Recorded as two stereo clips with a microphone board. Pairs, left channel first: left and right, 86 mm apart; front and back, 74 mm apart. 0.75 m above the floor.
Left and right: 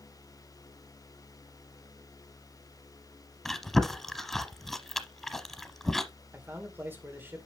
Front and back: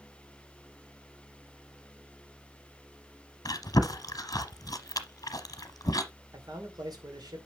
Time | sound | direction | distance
3.5 | chewing | 5° left | 0.9 m
6.3 | a man speaking | 155° right | 2.5 m